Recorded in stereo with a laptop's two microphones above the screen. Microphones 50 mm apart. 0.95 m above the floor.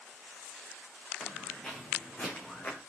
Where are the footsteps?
15° left (ahead or behind), 4 m; by 2.8 s 35° left (ahead or behind), 3.5 m.